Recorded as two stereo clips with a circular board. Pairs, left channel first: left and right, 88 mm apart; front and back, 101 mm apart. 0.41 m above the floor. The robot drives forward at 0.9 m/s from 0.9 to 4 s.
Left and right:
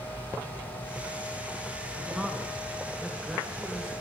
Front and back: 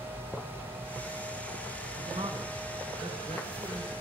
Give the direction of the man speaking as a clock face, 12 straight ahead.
6 o'clock.